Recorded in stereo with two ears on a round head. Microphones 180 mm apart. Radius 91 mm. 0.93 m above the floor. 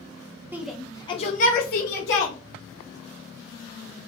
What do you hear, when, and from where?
0.5 s a shout: 10° right (ahead or behind), 0.7 m; by 2.4 s 65° left (ahead or behind), 1.5 m